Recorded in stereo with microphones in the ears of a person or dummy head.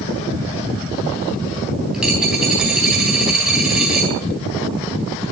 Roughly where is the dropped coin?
Centre.